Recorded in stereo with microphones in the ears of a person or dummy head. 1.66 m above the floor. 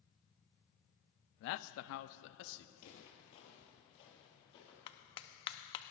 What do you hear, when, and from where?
1.4 s a man speaking: 60° left (ahead or behind), 0.6 m; by 2.7 s 65° left (ahead or behind), 1.0 m
2.8 s footsteps: 45° left (ahead or behind), 2.5 m; by 4.8 s 30° left (ahead or behind), 3 m
4.9 s a clap: 35° left (ahead or behind), 0.7 m